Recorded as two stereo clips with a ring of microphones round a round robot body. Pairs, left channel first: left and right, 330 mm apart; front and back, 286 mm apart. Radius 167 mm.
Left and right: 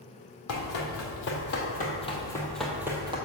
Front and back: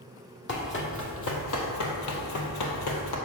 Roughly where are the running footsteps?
Ahead left.